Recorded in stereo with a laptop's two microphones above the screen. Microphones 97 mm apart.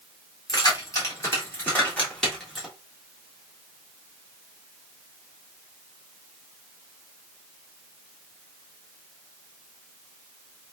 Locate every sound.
0.5 s keys jangling: 40° left (ahead or behind), 1.6 m; by 2.7 s 5° right (ahead or behind), 1.3 m